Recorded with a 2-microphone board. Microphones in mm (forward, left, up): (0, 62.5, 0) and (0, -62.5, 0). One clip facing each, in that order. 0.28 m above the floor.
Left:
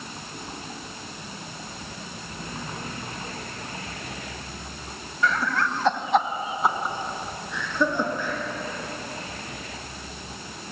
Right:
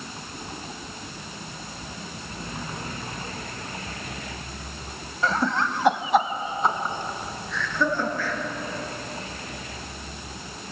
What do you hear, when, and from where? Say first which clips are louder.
5.2 s laughter: right 1 dB; 35° right (ahead or behind), 1.4 m; by 8.4 s 20° left (ahead or behind), 4 m